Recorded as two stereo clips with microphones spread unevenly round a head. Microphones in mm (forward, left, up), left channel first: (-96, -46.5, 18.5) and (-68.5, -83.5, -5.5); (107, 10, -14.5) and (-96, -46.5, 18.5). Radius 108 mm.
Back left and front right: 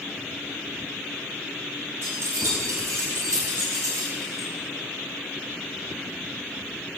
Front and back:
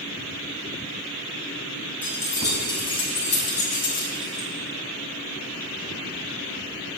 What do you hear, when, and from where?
2.0 s keys jangling: 65° right, 4.5 m; by 4.5 s 25° right, 4.5 m